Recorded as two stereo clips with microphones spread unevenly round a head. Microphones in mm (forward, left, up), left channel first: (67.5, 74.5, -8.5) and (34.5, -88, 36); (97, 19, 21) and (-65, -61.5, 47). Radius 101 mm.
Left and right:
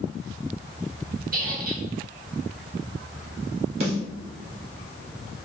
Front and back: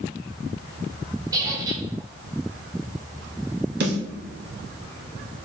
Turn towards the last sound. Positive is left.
turn(degrees=-165)